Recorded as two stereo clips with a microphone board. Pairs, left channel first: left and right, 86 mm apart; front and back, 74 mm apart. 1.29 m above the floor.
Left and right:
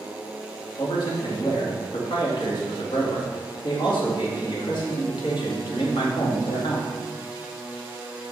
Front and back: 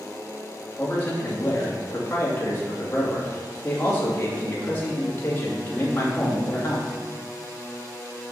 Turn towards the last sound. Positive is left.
turn(degrees=65)